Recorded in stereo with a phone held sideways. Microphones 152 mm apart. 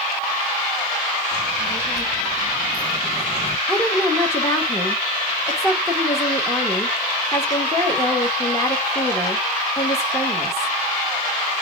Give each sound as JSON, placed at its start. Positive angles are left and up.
{"t": 1.3, "sound": "a child speaking", "side_deg": 45, "distance_m": 2.0}
{"t": 3.7, "sound": "a woman speaking", "side_deg": 20, "distance_m": 1.6}